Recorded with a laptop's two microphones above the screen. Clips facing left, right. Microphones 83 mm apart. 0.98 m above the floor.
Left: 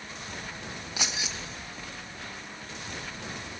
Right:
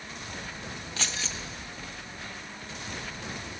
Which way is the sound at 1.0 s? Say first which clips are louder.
Left 1 dB; 15° left (ahead or behind).